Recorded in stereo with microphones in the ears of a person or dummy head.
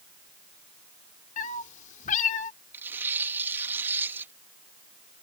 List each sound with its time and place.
1.4 s a cat meowing: 45° left (ahead or behind)
2.7 s tearing paper: 15° right (ahead or behind)